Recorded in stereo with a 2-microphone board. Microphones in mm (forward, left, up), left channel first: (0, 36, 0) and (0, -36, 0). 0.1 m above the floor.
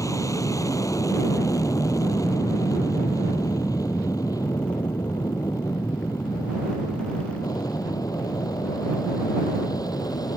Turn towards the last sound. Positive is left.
turn(degrees=60)  # may be behind; listen again after turning